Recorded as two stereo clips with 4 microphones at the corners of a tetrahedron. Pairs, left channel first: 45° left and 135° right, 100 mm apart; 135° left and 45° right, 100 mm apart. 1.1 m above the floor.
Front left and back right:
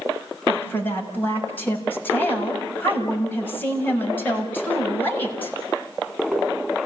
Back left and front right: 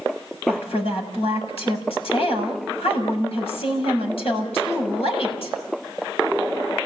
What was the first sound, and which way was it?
A woman speaking, 115° left.